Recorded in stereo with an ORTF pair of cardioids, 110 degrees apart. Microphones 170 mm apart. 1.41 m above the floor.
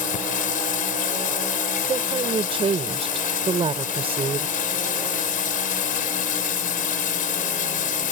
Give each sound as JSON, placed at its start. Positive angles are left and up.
{"t": 0.0, "sound": "running water", "azimuth_deg": 55}
{"t": 1.9, "sound": "a woman speaking", "azimuth_deg": -35}